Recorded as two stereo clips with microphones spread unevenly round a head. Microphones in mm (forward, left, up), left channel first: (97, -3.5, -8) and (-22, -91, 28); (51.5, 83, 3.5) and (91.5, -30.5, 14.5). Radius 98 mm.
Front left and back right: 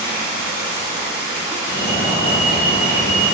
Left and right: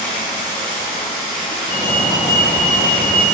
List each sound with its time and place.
0.0 s running water: 140° left, 2.5 m
1.7 s a fire alarm: 85° left, 2 m